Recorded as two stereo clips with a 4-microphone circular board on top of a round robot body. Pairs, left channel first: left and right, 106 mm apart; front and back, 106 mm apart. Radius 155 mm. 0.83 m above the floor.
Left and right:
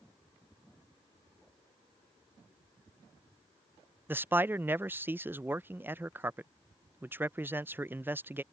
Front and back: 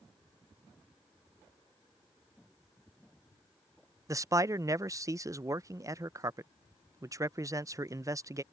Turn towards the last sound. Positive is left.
turn(degrees=-145)